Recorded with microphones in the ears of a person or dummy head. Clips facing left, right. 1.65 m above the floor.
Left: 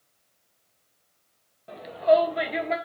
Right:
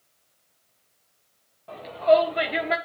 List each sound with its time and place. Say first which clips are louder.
1.7 s a shout: right 1 dB; 20° left (ahead or behind), 2 m; by 2.8 s 15° right (ahead or behind), 1.7 m